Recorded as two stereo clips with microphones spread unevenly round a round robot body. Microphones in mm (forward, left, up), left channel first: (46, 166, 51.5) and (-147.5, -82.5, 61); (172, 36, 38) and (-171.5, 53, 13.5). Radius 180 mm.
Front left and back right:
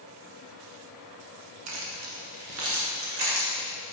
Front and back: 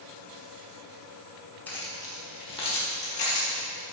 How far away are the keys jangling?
About 1.0 m.